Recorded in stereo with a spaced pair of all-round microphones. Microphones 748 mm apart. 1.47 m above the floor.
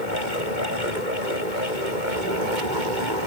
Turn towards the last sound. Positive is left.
turn(degrees=-85)